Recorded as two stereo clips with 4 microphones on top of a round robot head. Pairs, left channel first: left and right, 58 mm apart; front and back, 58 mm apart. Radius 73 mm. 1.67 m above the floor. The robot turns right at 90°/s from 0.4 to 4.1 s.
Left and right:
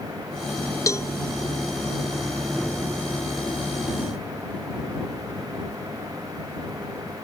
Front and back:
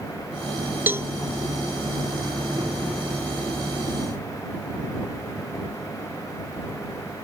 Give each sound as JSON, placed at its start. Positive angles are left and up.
{"t": 0.9, "sound": "a cowbell", "azimuth_deg": 120}